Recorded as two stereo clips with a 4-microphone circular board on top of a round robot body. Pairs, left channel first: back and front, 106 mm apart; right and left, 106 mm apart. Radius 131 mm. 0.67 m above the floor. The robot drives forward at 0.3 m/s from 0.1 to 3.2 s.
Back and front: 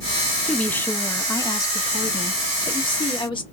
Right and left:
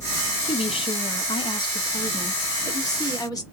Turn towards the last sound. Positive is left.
turn(degrees=-145)